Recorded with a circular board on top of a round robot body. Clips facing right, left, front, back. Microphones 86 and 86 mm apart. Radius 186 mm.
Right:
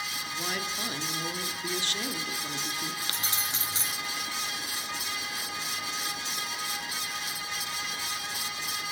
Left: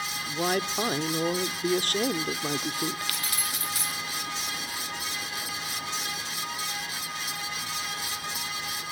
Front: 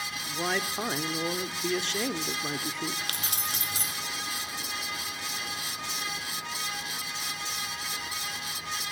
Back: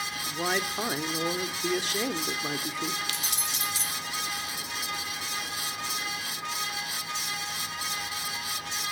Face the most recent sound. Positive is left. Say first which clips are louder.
# left 1 dB, even
turn(degrees=-30)